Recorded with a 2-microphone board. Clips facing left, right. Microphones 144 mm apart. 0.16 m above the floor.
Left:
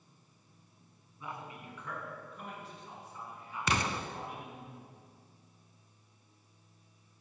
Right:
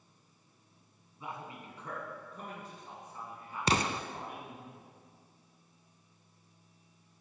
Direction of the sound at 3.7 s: 30° right (ahead or behind).